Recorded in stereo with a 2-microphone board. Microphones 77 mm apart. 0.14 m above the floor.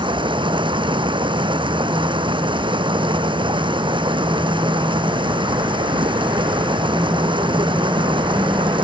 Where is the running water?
80° right.